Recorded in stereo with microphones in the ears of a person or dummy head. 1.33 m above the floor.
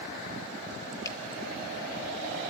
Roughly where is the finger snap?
Centre.